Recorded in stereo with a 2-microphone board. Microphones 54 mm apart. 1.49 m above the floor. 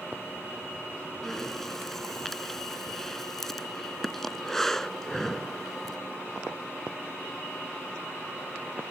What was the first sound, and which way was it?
Breathing, 5° left (ahead or behind).